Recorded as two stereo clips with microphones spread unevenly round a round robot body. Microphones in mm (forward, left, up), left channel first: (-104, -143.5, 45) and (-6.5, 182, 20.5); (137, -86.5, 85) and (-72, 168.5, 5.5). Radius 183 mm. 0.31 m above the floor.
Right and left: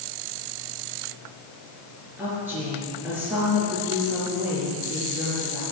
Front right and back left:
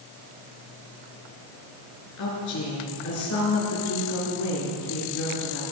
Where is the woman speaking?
10° right, 5 m.